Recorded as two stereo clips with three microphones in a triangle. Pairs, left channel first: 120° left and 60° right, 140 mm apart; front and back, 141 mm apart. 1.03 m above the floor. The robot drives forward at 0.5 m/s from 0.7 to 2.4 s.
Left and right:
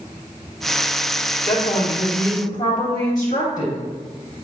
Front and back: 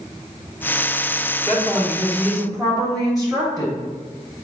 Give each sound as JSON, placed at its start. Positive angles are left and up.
{"t": 1.5, "sound": "a woman speaking", "azimuth_deg": 80, "distance_m": 0.7}